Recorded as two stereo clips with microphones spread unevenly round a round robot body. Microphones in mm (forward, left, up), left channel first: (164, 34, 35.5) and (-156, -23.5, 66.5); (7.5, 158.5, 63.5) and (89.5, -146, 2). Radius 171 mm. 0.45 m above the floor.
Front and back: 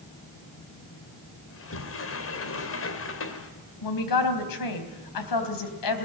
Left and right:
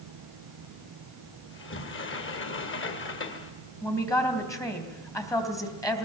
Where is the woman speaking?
20° left, 3.5 m.